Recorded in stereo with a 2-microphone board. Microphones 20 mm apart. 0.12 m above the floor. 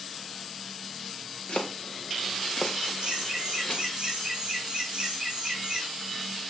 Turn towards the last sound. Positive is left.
turn(degrees=-45)  # may be behind; listen again after turning